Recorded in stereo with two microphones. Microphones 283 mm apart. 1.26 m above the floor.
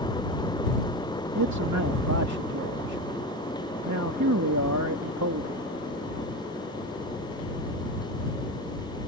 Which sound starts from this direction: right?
A man speaking, at 1.4 s.